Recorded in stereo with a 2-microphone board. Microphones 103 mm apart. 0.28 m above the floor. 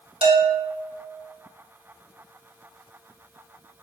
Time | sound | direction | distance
0.2 | a bell | 75° right (ahead or behind) | 0.6 m